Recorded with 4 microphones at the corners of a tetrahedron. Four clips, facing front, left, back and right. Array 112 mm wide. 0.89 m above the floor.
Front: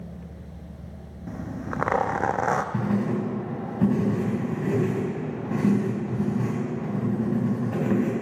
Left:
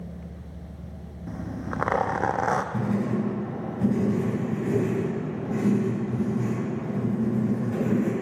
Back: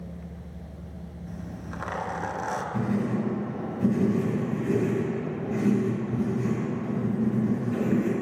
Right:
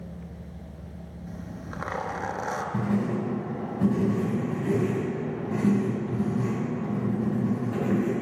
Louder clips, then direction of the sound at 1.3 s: Left 7 dB, front 8 dB; 40° left.